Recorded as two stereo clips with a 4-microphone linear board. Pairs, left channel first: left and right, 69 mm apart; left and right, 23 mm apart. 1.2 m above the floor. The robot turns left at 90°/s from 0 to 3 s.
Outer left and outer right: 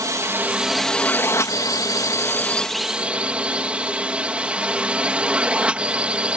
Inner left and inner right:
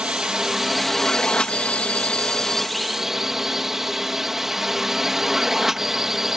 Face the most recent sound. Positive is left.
turn(degrees=-20)